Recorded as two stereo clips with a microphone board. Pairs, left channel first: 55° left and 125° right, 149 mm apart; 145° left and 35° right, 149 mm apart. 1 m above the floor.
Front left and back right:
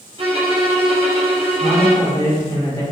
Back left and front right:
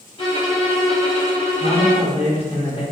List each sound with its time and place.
0.2 s a violin: 170° right, 0.9 m
1.6 s a man speaking: 120° left, 1.0 m